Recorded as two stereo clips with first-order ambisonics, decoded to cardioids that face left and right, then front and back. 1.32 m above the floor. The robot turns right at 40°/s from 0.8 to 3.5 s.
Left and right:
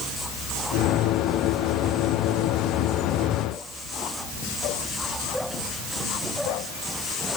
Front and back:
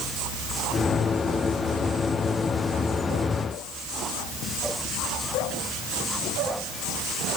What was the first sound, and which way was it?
Only background noise.